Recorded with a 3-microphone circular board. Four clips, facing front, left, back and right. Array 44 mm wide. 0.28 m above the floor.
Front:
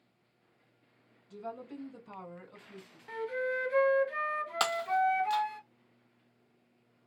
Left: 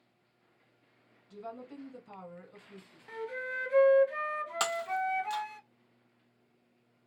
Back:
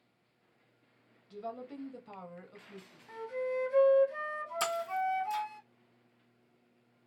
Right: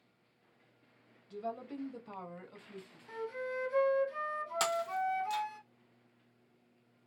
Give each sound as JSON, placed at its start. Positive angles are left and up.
{"t": 1.3, "sound": "a woman speaking", "azimuth_deg": -150, "distance_m": 1.4}
{"t": 3.1, "sound": "a flute", "azimuth_deg": 35, "distance_m": 0.8}
{"t": 4.6, "sound": "breaking glass", "azimuth_deg": 15, "distance_m": 0.9}